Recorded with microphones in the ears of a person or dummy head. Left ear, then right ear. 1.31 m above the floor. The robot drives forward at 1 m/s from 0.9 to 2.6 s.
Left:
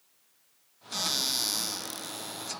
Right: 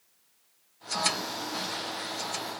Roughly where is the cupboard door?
Left.